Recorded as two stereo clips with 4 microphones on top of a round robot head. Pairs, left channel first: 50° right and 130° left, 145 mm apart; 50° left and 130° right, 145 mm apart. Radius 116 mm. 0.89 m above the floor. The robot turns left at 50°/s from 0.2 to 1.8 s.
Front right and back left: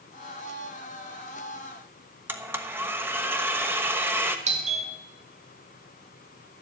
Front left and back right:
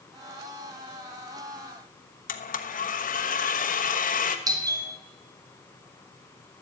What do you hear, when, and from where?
2.3 s a blender: 55° left, 1.2 m
4.5 s a doorbell: 165° left, 2 m